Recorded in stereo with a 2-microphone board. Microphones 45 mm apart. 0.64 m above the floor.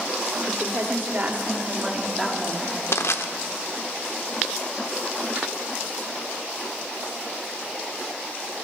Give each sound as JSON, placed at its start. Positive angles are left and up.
{"t": 0.5, "sound": "a woman speaking", "side_deg": -60, "distance_m": 2.5}
{"t": 2.9, "sound": "crushing", "side_deg": 75, "distance_m": 0.9}